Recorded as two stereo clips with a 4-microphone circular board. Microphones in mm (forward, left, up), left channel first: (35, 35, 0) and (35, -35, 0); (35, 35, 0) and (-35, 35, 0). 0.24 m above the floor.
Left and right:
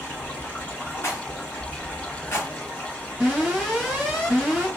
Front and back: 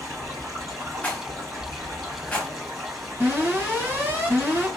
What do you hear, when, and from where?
0.0 s running water: 155° left, 1.7 m
1.0 s a rattle: 65° left, 1.0 m
3.2 s an alarm: 165° right, 2 m